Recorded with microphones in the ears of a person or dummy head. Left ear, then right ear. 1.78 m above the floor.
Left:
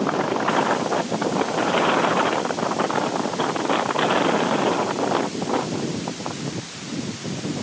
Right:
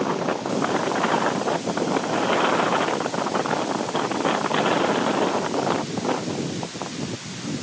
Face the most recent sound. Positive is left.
No sound to turn to.